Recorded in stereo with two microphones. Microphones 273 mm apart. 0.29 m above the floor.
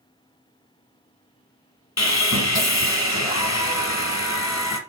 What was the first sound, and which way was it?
Sawing, 70° left (ahead or behind).